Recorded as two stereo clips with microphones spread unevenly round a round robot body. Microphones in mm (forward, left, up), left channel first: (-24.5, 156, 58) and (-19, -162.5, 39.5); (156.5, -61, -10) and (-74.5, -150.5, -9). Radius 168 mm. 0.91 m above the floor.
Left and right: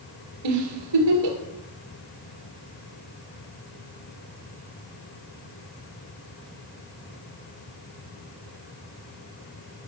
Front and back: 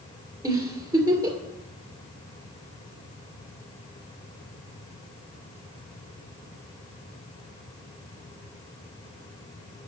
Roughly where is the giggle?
Right.